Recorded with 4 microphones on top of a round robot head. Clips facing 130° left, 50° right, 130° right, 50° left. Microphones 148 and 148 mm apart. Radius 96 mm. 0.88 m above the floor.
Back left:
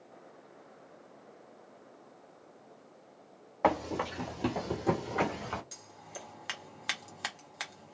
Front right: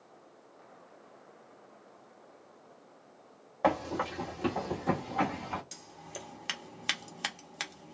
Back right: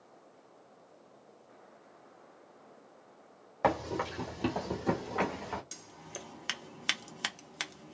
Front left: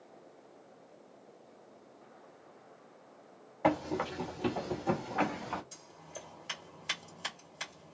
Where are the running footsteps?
145° right, 1.6 m; by 5.6 s 155° left, 1.5 m.